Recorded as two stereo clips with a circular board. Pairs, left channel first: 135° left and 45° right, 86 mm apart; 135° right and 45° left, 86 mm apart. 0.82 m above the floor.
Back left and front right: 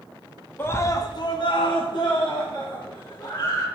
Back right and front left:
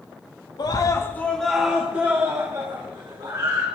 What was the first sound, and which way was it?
A scream, 165° right.